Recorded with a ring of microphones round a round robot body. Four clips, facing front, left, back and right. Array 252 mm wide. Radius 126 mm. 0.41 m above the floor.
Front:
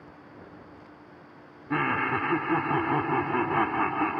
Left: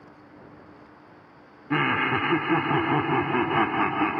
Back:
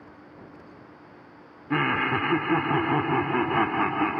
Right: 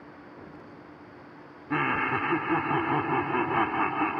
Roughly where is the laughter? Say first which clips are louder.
Left 3 dB, back 2 dB; behind left.